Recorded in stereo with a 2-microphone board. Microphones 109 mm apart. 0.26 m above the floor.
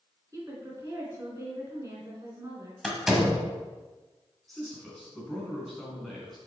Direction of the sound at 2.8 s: 5° right (ahead or behind).